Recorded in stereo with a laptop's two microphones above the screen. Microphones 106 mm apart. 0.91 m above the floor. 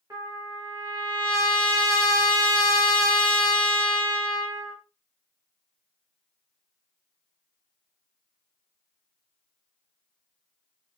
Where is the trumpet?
30° right (ahead or behind), 1.1 m.